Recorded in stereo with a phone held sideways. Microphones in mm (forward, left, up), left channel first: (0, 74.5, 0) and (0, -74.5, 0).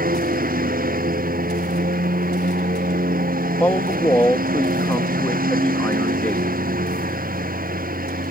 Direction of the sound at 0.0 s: 75° right (ahead or behind).